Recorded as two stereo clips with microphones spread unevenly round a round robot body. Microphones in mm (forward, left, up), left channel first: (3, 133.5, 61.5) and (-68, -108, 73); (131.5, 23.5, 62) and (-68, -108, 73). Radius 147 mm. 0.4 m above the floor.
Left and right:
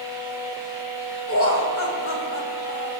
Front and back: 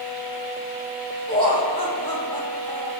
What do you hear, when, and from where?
1.3 s laughter: 100° left, 2.5 m